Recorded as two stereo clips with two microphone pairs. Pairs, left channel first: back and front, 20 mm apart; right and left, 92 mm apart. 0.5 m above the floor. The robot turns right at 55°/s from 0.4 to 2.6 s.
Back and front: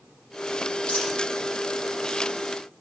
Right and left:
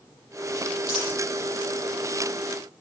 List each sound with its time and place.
0.9 s a dropped coin: 170° left, 9 m; by 1.1 s 175° right, 9 m